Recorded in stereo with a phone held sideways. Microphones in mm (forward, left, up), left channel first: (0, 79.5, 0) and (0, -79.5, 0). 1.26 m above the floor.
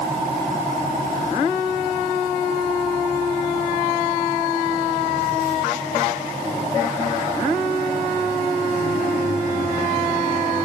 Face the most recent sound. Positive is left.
No sound to turn to.